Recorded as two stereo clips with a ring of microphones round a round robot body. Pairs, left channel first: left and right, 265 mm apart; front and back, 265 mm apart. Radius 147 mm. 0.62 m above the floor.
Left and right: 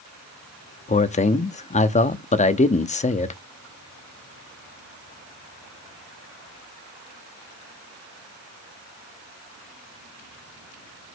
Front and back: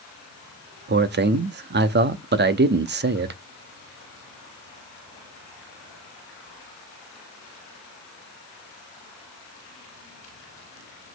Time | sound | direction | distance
0.9 | a man speaking | 145° left | 0.7 m